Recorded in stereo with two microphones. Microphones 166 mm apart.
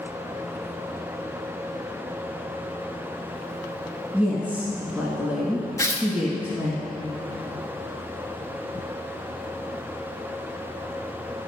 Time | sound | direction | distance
4.1 | a woman speaking | 10° right (ahead or behind) | 1.4 m
5.8 | tearing paper | 20° left (ahead or behind) | 0.9 m